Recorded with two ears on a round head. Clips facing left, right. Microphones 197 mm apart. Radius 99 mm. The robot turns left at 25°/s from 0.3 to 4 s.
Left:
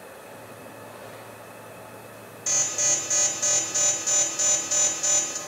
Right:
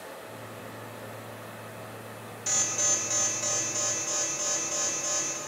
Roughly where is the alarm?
Behind.